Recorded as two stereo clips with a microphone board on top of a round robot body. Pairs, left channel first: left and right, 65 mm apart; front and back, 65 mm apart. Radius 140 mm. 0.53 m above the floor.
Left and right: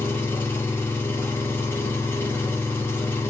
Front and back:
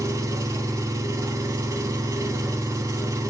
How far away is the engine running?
About 1.7 m.